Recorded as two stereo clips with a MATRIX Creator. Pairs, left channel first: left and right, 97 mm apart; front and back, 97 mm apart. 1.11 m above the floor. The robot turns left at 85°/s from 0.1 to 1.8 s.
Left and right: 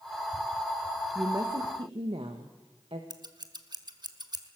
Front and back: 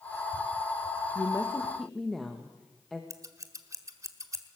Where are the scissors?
125° right, 1.4 m.